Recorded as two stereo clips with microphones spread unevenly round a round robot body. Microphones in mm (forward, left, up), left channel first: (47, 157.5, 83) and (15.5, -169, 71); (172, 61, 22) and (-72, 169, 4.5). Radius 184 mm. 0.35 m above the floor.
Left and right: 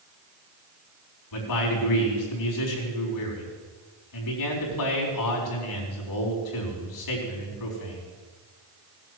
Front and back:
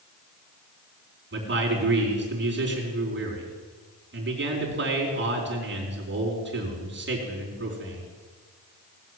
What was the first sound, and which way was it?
A man speaking, 110° left.